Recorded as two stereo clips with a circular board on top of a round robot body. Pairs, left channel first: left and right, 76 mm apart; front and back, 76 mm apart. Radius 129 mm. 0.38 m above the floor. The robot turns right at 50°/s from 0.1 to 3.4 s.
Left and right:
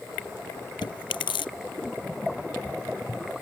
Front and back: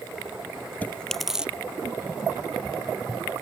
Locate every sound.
0.8 s chewing: 70° left; by 1.5 s 105° left